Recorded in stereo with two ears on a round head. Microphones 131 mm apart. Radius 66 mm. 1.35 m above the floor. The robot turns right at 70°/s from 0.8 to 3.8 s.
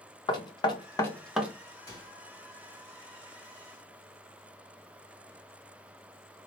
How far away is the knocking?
About 0.8 m.